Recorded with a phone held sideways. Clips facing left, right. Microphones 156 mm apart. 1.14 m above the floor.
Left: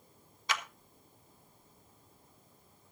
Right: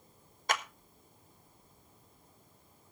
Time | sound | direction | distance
0.5 | a clap | 50° right (ahead or behind) | 1.3 m